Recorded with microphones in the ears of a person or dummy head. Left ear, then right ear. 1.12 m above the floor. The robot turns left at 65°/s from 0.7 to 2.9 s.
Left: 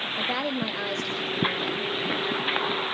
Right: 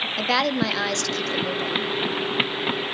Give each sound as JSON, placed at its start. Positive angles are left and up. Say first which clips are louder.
{"t": 0.2, "sound": "a woman speaking", "louder": "right 7 dB", "azimuth_deg": -80, "distance_m": 2.5}